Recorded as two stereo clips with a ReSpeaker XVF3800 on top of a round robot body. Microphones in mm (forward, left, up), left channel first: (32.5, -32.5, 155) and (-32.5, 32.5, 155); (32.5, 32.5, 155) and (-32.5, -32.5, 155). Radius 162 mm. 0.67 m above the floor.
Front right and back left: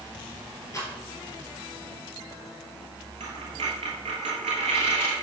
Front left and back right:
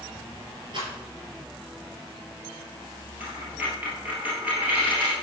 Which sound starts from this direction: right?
A rattle, at 0.7 s.